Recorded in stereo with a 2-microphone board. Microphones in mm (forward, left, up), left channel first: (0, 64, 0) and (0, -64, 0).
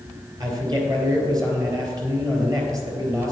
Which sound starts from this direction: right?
A man speaking, at 0.4 s.